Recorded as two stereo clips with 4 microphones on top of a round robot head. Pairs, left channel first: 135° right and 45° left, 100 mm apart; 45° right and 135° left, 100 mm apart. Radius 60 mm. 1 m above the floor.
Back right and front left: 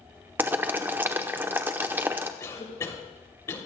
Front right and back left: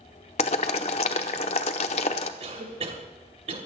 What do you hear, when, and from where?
0.4 s boiling: 25° right, 0.9 m
2.4 s a cough: 160° left, 3 m